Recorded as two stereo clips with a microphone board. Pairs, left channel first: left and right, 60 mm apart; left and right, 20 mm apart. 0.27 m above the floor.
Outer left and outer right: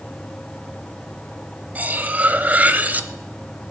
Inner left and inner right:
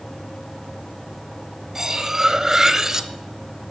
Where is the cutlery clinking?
25° right (ahead or behind), 0.7 m.